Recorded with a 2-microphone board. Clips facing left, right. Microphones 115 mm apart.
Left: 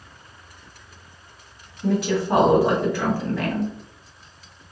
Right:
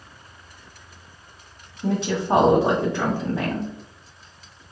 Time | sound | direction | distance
1.8 | a woman speaking | 25° right (ahead or behind) | 1.3 m